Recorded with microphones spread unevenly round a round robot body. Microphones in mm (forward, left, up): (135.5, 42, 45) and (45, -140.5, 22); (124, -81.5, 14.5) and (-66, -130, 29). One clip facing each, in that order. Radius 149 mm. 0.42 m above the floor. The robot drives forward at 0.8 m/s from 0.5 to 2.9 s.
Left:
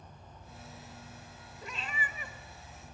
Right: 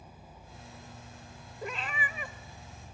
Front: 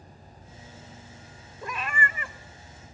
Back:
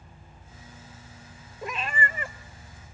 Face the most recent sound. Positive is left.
turn(degrees=-140)